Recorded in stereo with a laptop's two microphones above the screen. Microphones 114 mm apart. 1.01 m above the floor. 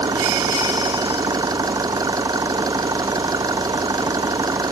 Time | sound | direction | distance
0.0 | an engine running | 35° right (ahead or behind) | ?